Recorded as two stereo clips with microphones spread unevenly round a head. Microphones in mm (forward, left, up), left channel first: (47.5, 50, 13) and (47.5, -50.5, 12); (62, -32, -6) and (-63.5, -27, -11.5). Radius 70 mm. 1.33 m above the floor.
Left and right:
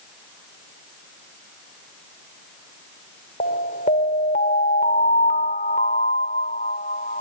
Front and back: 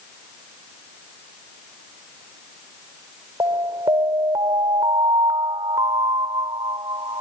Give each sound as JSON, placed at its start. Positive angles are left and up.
{"t": 3.4, "sound": "an alarm", "azimuth_deg": 110}